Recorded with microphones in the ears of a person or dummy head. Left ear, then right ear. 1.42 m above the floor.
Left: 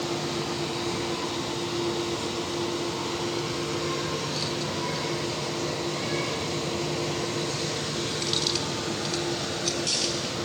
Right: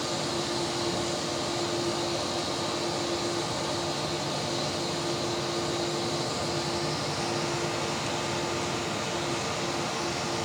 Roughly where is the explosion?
I don't hear an explosion.